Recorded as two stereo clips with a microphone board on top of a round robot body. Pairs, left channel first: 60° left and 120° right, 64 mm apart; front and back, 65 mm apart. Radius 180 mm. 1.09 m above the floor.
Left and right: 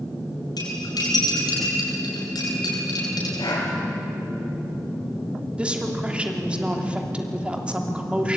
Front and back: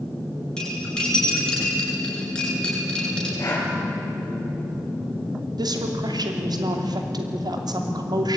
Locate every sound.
0.6 s cutlery clinking: 80° left, 8 m
3.4 s breathing: 50° left, 5 m
5.6 s a woman speaking: 165° left, 3 m